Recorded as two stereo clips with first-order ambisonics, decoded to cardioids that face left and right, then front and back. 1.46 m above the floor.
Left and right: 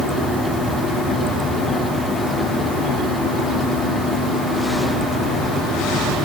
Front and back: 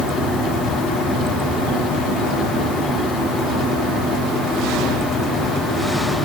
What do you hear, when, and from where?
Only background noise.